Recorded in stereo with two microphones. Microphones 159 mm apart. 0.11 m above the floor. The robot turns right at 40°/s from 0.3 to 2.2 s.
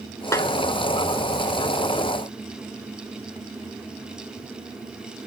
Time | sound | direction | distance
0.3 | a snare drum | 20° left (ahead or behind) | 0.9 m